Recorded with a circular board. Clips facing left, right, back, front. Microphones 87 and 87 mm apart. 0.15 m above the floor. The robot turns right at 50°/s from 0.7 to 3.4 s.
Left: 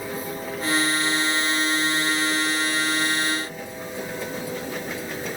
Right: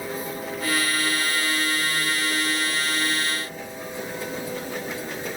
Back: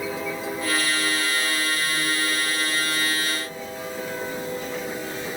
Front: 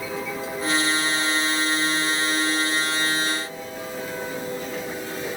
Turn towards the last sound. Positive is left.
No sound to turn to.